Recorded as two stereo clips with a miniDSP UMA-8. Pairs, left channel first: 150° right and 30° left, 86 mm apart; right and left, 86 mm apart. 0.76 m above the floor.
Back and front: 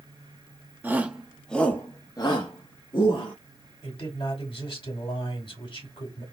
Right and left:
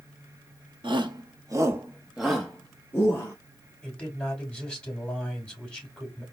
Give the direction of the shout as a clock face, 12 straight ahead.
9 o'clock.